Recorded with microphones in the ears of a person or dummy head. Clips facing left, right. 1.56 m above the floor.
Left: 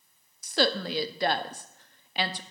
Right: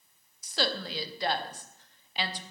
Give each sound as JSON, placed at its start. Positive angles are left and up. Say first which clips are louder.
{"t": 0.4, "sound": "a woman speaking", "louder": "left 6 dB", "side_deg": 45, "distance_m": 0.8}